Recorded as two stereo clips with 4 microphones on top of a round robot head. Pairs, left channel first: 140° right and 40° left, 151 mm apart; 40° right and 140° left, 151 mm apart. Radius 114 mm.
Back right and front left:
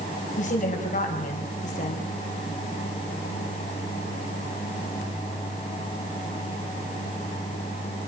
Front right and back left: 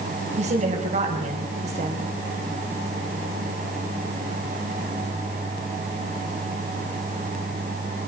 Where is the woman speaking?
Straight behind, 4.5 m.